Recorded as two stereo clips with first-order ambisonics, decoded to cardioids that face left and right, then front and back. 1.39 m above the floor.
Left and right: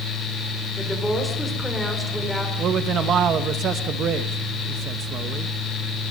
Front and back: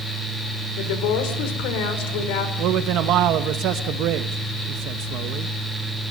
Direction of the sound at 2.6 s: 145° right.